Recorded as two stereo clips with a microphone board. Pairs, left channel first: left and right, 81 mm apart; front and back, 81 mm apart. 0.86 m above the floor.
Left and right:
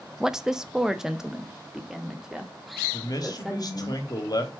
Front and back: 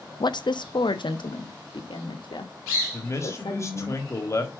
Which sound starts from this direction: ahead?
A woman speaking, at 0.2 s.